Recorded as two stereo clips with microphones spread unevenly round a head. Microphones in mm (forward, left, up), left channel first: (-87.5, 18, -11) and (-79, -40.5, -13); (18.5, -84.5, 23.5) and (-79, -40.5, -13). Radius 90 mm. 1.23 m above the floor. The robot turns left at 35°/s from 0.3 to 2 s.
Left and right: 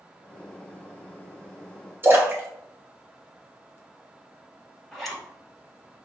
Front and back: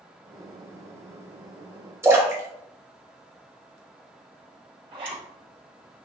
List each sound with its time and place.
2.0 s a splash: 135° right, 1.7 m
4.9 s a zipper: 175° right, 1.8 m